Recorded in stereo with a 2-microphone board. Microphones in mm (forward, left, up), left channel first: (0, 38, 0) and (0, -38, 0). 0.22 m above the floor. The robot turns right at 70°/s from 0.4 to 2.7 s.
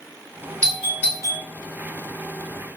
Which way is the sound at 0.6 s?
15° left (ahead or behind).